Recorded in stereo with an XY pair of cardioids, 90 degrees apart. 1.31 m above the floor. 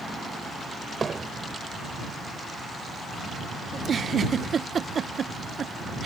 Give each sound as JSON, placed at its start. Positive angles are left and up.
{"t": 1.0, "sound": "hammering", "azimuth_deg": -40}
{"t": 3.7, "sound": "a giggle", "azimuth_deg": -50}